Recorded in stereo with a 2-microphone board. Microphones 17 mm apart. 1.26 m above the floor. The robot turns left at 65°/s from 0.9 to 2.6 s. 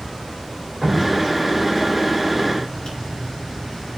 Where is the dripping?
20° right (ahead or behind), 4.5 m; by 3.0 s 90° left, 4.5 m.